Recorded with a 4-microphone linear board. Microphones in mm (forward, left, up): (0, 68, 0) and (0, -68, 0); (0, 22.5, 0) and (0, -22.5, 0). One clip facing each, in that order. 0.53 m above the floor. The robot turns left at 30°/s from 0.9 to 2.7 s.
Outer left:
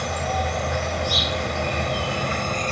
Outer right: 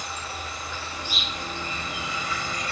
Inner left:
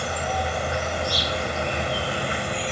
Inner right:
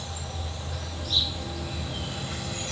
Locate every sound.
0.0 s an insect: 100° left; by 2.7 s 45° left